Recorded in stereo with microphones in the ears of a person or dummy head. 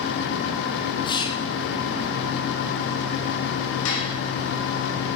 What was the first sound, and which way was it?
Whispering, 25° left (ahead or behind).